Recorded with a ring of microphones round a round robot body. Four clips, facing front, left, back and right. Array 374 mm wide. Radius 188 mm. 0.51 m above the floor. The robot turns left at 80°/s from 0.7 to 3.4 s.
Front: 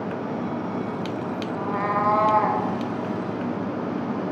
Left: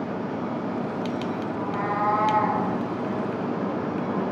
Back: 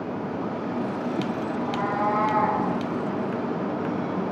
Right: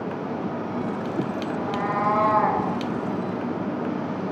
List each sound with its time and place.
1.5 s a cat meowing: 25° left, 1.3 m; by 2.7 s 65° right, 1.3 m